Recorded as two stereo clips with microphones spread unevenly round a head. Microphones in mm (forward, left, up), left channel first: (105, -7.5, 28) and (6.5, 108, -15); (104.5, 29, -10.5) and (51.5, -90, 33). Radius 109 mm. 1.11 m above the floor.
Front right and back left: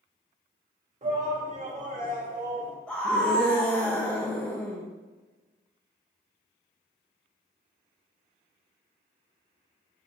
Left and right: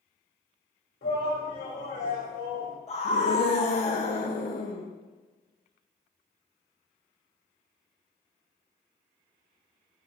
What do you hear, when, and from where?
1.0 s a shout: 90° left, 3.5 m; by 2.8 s 105° left, 3 m
2.9 s a scream: 40° left, 1.2 m